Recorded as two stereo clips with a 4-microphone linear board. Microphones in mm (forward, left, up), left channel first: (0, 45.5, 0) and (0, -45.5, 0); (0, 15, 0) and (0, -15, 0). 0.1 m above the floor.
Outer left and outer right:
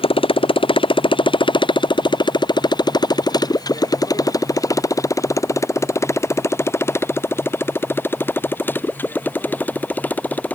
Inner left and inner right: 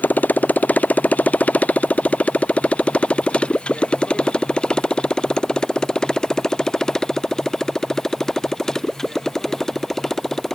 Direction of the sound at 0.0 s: 75° left (ahead or behind).